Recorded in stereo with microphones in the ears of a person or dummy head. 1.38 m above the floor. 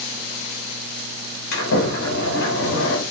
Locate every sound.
1.5 s a sliding door: 80° left, 6.5 m